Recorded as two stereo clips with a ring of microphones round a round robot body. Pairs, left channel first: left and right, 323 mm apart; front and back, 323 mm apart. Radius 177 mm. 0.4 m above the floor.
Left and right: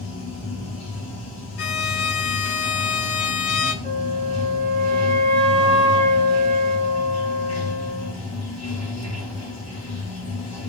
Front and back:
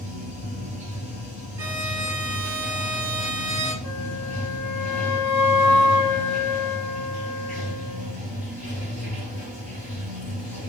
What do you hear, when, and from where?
0.0 s running water: 50° left, 1.4 m
1.6 s a violin: 100° left, 0.6 m
3.8 s a flute: 30° right, 0.8 m